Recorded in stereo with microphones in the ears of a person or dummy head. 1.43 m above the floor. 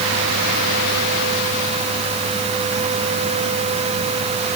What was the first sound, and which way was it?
Only background noise.